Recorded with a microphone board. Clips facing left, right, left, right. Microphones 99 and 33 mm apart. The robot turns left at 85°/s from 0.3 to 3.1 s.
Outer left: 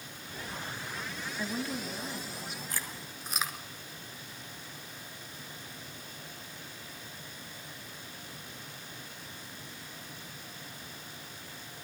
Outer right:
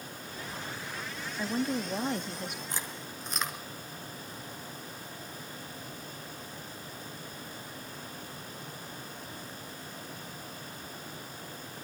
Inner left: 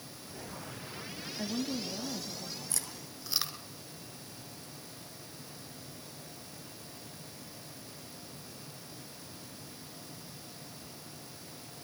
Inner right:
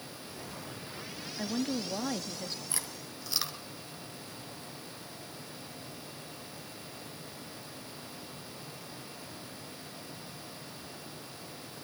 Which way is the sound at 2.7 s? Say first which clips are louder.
Outer right 2 dB, inner right 2 dB; 25° right (ahead or behind).